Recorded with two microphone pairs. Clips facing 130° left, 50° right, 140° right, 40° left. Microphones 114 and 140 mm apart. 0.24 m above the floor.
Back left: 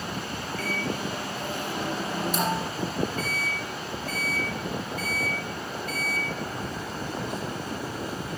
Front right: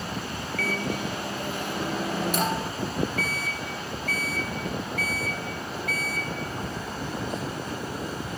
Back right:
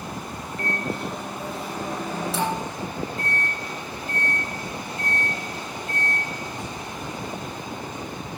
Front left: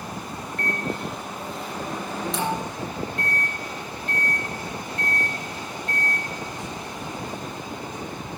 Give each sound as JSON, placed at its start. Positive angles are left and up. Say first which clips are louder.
{"t": 0.6, "sound": "a microwave", "louder": "front right 2 dB, even", "azimuth_deg": -55, "distance_m": 2.5}